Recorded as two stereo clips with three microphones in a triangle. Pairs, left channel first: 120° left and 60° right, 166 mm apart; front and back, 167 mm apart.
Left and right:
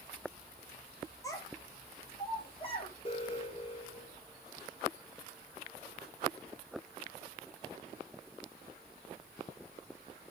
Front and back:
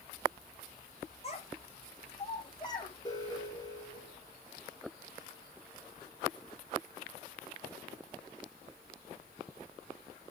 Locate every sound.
1.2 s a child speaking: 50° left, 3.5 m; by 2.9 s 65° left, 4.5 m
3.0 s an alarm: 65° left, 6.5 m